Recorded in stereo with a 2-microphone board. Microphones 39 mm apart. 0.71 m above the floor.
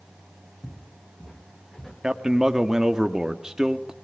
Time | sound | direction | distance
0.6 | footsteps | 25° left (ahead or behind) | 3 m
2.0 | a man speaking | 15° right (ahead or behind) | 1.4 m